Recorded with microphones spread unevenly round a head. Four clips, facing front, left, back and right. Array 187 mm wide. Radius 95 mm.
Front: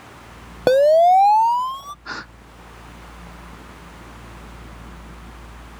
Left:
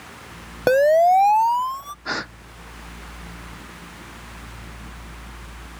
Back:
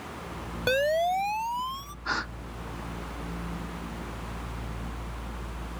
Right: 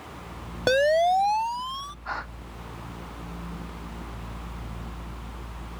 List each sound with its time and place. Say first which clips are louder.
0.7 s a siren: left 6 dB, front 13 dB; 20° left; by 1.9 s 30° left
2.0 s a gasp: left 5 dB, back 6 dB; 100° left